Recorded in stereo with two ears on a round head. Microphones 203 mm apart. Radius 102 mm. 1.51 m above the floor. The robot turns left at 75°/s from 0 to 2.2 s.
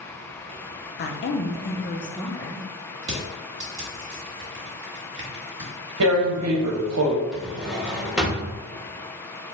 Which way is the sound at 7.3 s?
5° right (ahead or behind).